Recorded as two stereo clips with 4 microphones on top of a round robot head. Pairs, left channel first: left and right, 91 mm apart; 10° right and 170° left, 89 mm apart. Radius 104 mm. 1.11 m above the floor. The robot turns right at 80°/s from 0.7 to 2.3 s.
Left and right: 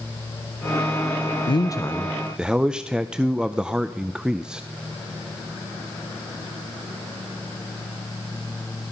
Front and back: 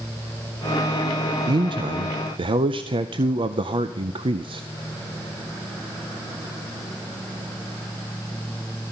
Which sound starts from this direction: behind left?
A man speaking, at 1.5 s.